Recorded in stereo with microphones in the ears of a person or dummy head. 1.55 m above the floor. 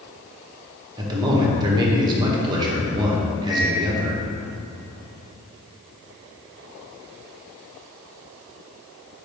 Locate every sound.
1.0 s a man speaking: 25° right (ahead or behind), 1.5 m
3.5 s a microwave: 30° left (ahead or behind), 2.5 m